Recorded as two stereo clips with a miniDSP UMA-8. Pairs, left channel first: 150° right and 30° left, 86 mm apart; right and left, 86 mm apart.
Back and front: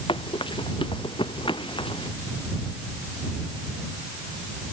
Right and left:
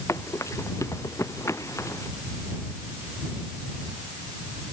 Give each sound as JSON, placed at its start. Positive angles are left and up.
{"t": 0.1, "sound": "running footsteps", "azimuth_deg": -145}